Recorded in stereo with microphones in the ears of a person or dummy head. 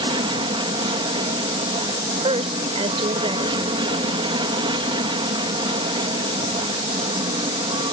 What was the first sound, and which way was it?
An aircraft, 30° right (ahead or behind).